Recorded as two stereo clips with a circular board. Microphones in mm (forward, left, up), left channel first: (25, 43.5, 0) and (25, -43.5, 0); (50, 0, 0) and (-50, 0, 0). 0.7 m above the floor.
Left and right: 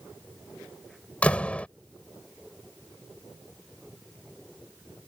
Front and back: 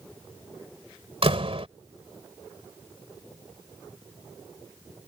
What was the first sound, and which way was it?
A door slam, 165° left.